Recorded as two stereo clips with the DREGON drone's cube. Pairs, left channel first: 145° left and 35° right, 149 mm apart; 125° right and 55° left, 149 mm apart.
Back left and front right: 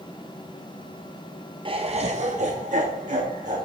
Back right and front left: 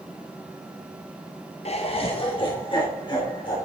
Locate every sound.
1.6 s laughter: 85° right, 0.7 m; by 3.6 s 65° right, 2.5 m